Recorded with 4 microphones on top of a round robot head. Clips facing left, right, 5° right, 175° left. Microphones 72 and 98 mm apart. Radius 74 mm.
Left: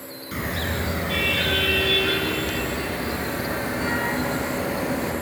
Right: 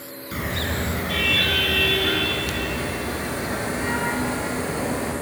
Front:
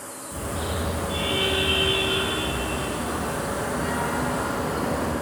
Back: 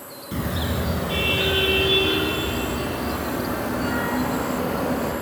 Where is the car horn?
170° left, 5 m; by 5.1 s 135° left, 7 m.